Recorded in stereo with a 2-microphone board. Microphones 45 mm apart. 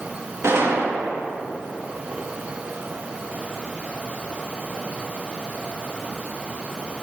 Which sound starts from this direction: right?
A gunshot, at 0.4 s.